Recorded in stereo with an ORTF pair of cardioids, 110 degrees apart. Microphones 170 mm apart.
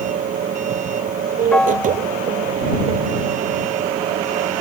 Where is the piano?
5° left.